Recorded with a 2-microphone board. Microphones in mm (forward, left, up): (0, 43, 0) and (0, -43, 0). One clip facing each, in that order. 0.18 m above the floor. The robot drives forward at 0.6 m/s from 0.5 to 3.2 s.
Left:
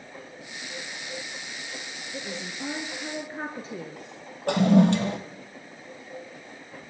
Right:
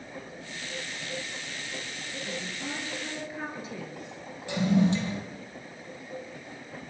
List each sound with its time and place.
2.1 s a woman speaking: 30° left (ahead or behind), 3.5 m; by 4.0 s 35° left (ahead or behind), 3 m
4.5 s a toilet flushing: 65° left (ahead or behind), 2.5 m